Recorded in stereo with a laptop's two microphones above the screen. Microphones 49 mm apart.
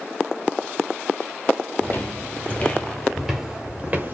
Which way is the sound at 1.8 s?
45° left (ahead or behind).